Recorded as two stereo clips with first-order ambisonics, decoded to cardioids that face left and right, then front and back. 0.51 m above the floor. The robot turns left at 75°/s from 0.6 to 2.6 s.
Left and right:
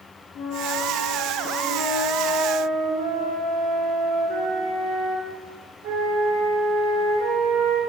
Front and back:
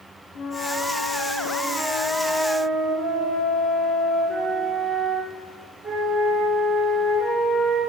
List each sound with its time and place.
0.3 s a flute: 40° left, 4 m; by 7.8 s 110° right, 4 m